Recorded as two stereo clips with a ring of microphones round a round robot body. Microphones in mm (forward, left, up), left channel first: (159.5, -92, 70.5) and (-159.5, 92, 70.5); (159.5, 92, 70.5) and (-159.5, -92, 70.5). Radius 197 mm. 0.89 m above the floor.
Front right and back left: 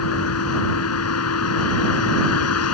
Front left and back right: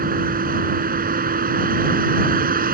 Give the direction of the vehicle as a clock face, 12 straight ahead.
3 o'clock.